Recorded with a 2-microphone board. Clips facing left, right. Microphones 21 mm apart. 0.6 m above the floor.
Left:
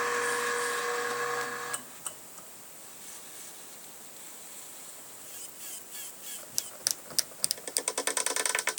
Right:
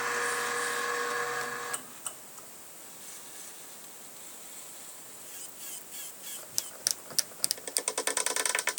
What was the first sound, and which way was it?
Only background noise.